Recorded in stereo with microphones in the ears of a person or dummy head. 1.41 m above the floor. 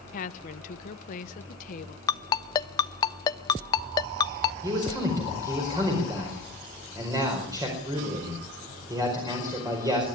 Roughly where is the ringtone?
Left.